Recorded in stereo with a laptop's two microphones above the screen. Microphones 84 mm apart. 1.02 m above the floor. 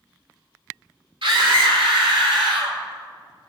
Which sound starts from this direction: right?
A scream, at 1.2 s.